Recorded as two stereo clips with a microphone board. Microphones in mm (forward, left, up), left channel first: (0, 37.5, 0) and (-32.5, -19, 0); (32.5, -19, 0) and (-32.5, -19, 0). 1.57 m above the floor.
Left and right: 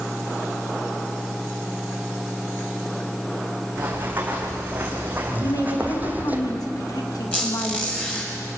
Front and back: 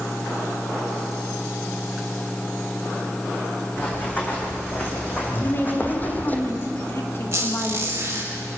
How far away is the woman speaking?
About 2.5 m.